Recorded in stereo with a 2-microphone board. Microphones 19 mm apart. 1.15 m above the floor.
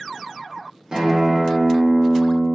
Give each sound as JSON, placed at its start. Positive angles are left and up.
{"t": 0.9, "sound": "a guitar", "side_deg": -50, "distance_m": 0.8}